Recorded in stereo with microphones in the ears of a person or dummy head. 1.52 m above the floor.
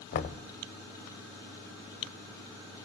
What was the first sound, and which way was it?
Knocking, 45° left (ahead or behind).